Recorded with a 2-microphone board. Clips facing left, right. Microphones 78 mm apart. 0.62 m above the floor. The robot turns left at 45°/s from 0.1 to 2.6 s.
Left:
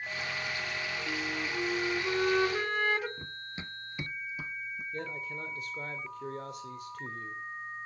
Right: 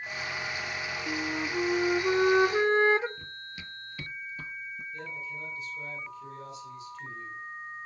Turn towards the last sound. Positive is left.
turn(degrees=55)  # may be behind; listen again after turning